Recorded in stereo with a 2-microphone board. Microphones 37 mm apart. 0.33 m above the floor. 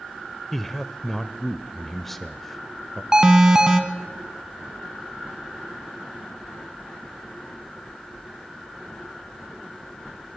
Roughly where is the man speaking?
Centre.